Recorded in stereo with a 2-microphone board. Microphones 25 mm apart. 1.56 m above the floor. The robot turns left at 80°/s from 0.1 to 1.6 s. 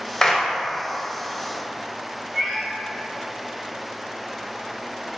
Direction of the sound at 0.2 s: 15° left (ahead or behind).